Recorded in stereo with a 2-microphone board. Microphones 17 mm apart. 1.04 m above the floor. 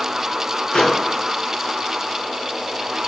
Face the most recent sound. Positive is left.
turn(degrees=80)